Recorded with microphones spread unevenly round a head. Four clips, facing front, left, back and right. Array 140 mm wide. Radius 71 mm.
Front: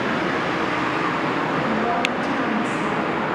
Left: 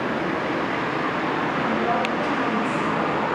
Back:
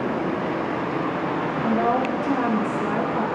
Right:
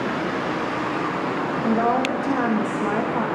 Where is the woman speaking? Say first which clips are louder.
Right 5 dB, back 1 dB; 120° right, 2.5 m.